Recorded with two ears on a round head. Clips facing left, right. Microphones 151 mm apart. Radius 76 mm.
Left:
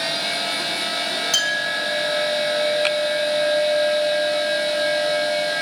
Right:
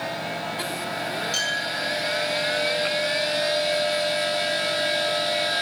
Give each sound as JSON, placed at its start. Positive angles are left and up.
{"t": 1.3, "sound": "a clink", "side_deg": 85, "distance_m": 4.5}